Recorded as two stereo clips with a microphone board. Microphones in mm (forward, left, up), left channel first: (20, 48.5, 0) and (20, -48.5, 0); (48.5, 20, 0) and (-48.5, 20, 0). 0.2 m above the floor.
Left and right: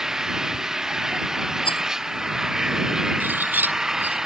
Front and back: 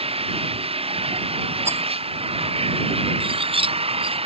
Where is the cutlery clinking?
160° right.